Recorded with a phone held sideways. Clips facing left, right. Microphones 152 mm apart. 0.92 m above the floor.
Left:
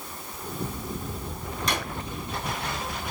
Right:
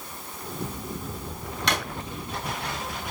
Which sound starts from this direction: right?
A drawer, at 1.7 s.